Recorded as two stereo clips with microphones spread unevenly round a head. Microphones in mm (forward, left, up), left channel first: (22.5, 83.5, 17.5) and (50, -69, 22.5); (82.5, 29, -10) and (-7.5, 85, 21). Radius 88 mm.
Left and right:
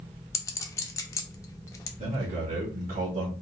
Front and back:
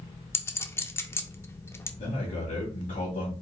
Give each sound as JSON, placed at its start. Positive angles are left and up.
{"t": 0.3, "sound": "a clink", "azimuth_deg": 45, "distance_m": 0.5}
{"t": 2.0, "sound": "a man speaking", "azimuth_deg": -40, "distance_m": 1.9}